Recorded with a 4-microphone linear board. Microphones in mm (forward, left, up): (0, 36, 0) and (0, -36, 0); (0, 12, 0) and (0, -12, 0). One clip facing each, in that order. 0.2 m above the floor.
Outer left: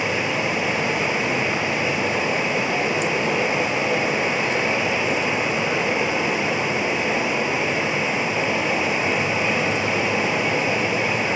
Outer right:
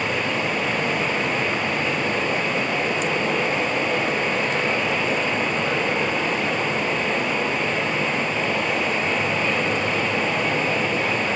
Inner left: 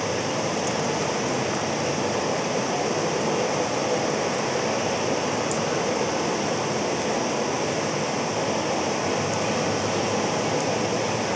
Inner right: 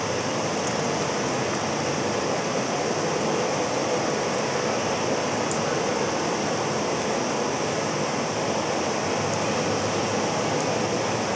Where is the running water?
10° left (ahead or behind), 2.5 m.